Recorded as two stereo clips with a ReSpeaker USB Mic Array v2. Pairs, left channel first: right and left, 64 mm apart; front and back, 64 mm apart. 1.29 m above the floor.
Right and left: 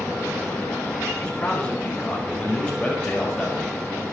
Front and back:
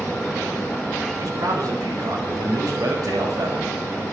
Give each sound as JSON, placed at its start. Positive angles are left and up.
{"t": 1.2, "sound": "a man speaking", "azimuth_deg": -160, "distance_m": 3.0}